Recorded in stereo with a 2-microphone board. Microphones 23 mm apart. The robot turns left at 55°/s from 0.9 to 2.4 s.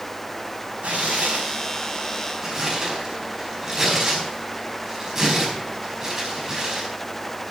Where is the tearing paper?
75° right (ahead or behind), 4.5 m; by 6.9 s 20° right (ahead or behind), 4.5 m.